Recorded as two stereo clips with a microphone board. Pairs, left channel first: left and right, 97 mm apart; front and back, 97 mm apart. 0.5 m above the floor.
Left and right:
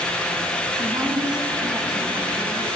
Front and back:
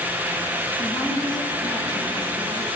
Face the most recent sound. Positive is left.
turn(degrees=-45)